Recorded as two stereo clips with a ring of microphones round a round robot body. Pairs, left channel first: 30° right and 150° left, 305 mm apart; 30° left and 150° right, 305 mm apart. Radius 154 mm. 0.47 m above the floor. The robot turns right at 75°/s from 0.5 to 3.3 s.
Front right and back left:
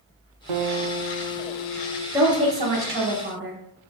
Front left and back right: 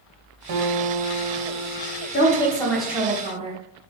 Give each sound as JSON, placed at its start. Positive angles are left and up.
{"t": 0.5, "sound": "a guitar", "azimuth_deg": 160, "distance_m": 0.6}
{"t": 2.1, "sound": "a woman speaking", "azimuth_deg": 70, "distance_m": 0.8}